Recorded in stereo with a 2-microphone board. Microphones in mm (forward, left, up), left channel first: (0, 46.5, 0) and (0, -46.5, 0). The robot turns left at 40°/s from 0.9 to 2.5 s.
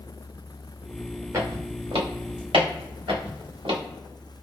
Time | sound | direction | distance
1.3 | footsteps | 35° right (ahead or behind) | 1.8 m